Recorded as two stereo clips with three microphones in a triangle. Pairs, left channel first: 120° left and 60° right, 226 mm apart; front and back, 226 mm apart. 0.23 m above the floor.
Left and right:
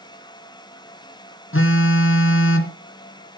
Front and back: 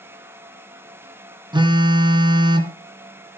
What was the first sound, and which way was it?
A phone buzzing, 115° left.